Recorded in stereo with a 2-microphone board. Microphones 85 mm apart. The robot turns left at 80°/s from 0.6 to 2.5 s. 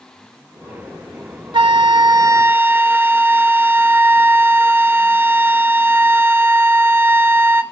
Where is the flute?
75° right, 0.6 m; by 7.6 s 155° right, 0.6 m.